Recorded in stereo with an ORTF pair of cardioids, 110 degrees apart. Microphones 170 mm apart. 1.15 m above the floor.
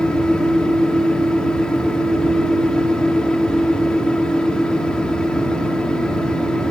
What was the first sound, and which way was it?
A fan, 5° left.